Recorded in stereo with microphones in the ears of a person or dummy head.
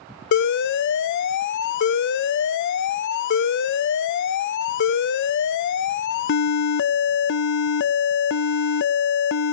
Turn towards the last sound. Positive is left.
turn(degrees=55)  # may be behind; listen again after turning